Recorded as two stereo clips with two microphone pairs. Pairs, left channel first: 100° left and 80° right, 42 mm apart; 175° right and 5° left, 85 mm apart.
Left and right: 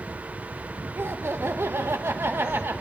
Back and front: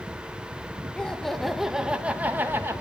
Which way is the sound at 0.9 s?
95° right.